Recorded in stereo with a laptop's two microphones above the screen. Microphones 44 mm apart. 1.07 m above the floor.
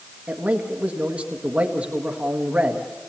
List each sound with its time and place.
0.3 s a man speaking: 35° right (ahead or behind), 1.6 m